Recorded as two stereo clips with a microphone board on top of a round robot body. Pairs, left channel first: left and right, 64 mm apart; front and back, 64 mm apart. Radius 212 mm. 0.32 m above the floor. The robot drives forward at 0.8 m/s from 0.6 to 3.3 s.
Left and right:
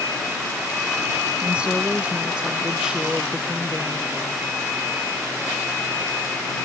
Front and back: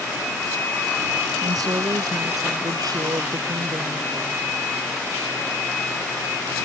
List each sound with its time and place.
1.4 s a woman speaking: 160° right; by 4.4 s 165° right